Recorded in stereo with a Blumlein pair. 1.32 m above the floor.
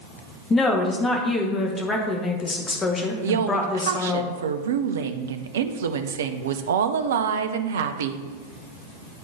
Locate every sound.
0.5 s a woman speaking: 20° left, 1.5 m
3.2 s a woman speaking: 60° right, 0.6 m